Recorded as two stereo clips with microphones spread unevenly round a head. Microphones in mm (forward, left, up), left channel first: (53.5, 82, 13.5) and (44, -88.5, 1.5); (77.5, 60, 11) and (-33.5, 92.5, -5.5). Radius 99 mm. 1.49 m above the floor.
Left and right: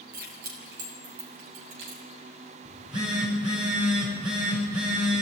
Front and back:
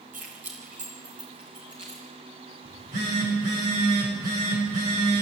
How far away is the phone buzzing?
About 7.5 m.